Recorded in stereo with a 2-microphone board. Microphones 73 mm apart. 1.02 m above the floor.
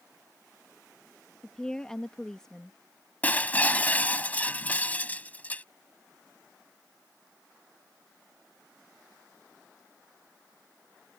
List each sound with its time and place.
1.4 s a woman speaking: 10° left (ahead or behind)
3.2 s breaking glass: 25° left (ahead or behind)